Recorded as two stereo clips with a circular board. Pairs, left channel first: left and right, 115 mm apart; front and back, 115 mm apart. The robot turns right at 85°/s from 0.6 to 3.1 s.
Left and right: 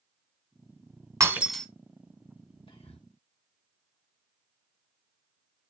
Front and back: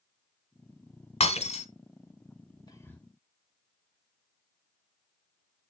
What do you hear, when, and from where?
1.2 s breaking glass: 30° right, 2 m; by 1.7 s 10° left, 2 m
2.7 s whispering: 50° left, 2.5 m; by 3.0 s 85° left, 2.5 m